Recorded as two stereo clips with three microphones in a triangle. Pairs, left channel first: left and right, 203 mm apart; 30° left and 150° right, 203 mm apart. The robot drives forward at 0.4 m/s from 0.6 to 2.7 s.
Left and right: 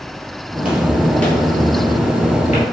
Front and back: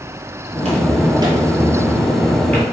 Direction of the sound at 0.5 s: 165° right.